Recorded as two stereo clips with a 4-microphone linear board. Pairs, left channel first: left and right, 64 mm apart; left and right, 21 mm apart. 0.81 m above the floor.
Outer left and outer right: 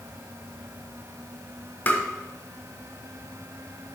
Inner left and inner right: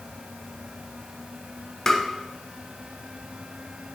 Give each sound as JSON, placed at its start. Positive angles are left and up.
{"t": 1.9, "sound": "tapping", "side_deg": 25, "distance_m": 0.9}